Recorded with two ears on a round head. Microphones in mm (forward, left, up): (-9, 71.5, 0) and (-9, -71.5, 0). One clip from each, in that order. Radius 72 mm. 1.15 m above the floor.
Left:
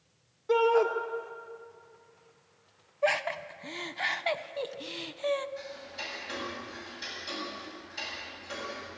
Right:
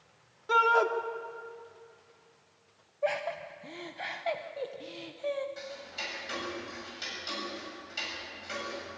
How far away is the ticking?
About 7.5 m.